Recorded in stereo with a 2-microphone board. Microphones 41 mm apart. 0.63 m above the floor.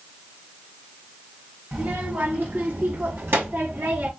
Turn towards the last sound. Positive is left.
turn(degrees=-75)  # may be behind; listen again after turning